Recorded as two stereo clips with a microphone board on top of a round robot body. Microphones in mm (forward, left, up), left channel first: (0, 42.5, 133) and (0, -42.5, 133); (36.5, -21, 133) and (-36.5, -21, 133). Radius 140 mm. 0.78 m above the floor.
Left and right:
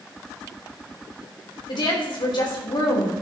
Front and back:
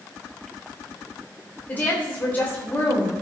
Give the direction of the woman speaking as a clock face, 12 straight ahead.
10 o'clock.